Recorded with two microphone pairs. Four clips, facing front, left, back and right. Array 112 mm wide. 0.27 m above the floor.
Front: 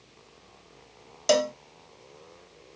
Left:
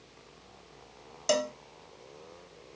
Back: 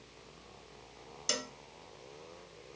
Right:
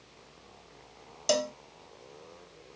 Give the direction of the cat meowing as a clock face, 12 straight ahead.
I don't hear a cat meowing.